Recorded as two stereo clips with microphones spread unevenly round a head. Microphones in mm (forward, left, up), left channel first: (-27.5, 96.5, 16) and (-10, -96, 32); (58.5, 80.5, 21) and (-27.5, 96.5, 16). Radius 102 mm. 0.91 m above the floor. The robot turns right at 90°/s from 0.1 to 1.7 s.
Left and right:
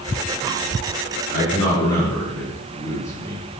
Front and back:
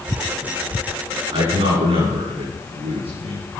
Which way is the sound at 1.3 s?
135° left.